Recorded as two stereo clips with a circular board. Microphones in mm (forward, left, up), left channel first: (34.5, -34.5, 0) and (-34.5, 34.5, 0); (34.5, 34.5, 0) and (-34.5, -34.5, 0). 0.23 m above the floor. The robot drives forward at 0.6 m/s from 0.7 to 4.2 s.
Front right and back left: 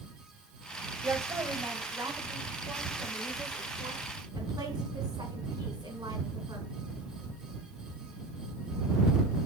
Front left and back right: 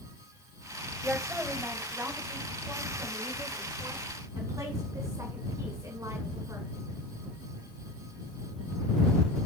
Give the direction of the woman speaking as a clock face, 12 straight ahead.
7 o'clock.